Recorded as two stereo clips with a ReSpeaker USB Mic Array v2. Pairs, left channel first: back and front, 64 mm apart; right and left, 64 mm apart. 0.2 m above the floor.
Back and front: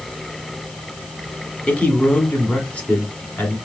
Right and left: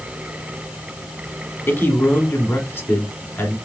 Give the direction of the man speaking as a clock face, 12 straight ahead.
4 o'clock.